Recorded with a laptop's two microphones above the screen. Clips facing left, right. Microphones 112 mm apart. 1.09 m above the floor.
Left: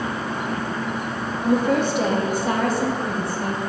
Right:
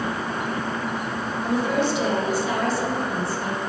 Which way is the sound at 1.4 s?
50° left (ahead or behind).